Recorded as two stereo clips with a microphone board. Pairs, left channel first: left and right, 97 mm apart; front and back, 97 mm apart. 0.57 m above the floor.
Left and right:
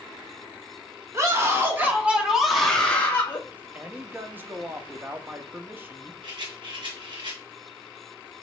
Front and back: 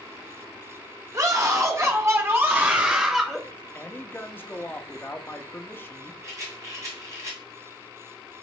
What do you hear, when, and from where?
1.1 s a scream: 135° right, 1.2 m; by 3.4 s 95° left, 0.9 m
3.5 s a man speaking: 40° right, 0.6 m
6.2 s a rattle: 125° right, 1.5 m